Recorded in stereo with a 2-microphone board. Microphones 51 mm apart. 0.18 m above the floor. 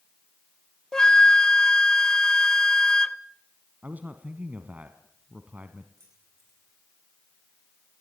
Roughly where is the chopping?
I don't hear chopping.